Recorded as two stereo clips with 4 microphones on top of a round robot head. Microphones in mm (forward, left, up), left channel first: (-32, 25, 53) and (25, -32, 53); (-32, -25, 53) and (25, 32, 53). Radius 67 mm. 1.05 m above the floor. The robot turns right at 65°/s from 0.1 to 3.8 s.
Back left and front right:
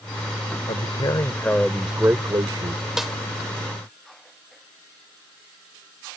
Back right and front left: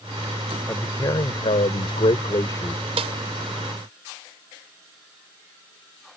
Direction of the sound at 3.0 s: 40° left.